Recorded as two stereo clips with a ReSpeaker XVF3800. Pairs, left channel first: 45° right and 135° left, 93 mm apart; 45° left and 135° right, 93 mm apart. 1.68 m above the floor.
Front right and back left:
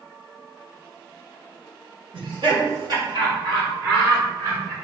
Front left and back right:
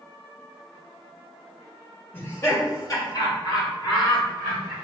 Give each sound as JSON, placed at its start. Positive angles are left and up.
{"t": 2.1, "sound": "laughter", "azimuth_deg": 110, "distance_m": 1.2}